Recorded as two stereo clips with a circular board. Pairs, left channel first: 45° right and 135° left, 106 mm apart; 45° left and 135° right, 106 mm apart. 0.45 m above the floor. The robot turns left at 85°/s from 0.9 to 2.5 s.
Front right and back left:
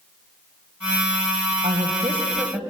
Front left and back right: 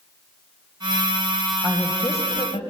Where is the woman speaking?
145° left, 2.5 m; by 2.6 s 70° left, 2.5 m.